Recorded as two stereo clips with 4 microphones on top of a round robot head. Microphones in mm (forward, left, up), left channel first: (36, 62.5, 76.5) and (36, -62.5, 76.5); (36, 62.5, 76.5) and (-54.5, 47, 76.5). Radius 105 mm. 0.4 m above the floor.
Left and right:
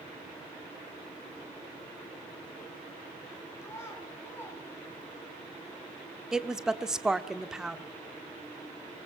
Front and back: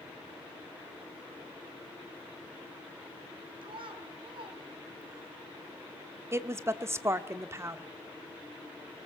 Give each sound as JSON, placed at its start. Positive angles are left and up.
{"t": 3.6, "sound": "a child speaking", "azimuth_deg": 160, "distance_m": 4.5}
{"t": 6.3, "sound": "a woman speaking", "azimuth_deg": -170, "distance_m": 1.2}